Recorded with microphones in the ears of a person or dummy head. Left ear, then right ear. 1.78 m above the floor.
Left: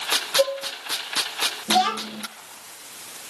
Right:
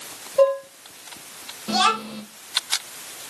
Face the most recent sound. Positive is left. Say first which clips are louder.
# right 2 dB
turn(degrees=-60)  # may be behind; listen again after turning